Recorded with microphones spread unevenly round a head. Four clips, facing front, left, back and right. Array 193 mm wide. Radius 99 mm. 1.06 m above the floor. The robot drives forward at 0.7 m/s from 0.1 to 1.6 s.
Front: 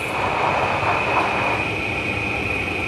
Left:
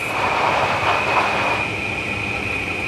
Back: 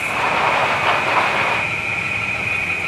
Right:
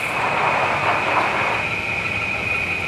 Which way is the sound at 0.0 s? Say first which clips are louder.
Left 1 dB, back 2 dB; 25° left.